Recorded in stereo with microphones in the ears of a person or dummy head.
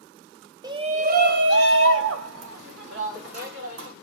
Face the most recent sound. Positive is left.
turn(degrees=-75)  # may be behind; listen again after turning